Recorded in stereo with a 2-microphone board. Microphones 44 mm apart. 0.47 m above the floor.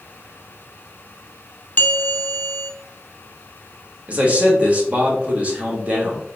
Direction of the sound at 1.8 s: 40° left (ahead or behind).